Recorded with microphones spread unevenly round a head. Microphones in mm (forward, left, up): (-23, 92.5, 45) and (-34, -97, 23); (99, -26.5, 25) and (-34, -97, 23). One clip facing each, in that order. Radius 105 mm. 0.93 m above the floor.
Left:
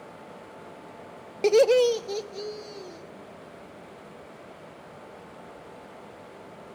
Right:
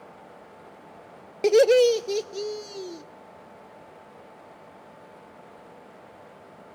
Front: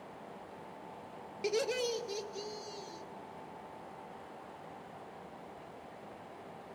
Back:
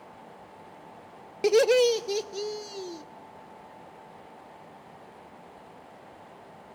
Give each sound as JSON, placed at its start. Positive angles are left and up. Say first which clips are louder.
{"t": 1.4, "sound": "laughter", "louder": "right 2 dB, back 14 dB", "azimuth_deg": 180, "distance_m": 0.5}